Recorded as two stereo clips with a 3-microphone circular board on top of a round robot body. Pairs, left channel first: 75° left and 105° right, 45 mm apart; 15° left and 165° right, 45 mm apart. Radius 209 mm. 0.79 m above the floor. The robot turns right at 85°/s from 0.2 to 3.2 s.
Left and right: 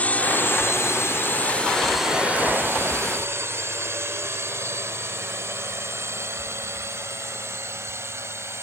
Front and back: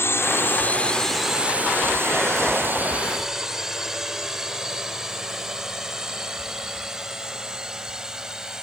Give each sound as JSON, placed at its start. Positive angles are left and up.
{"t": 0.0, "sound": "a drone", "azimuth_deg": 25}